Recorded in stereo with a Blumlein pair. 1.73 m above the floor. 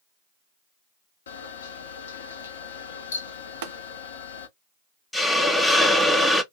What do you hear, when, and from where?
1.3 s a camera shutter: 65° left, 0.8 m
3.6 s tapping: 55° right, 0.6 m
5.1 s a hiss: 5° left, 0.6 m